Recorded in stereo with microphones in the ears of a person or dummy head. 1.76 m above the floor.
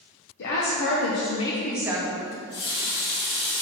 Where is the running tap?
60° left (ahead or behind), 1.8 m.